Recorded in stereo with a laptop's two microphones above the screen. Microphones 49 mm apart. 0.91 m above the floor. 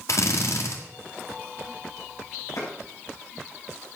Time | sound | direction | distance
0.1 | a drill | 70° left (ahead or behind) | 1.8 m
2.6 | a clap | 75° left (ahead or behind) | 5.5 m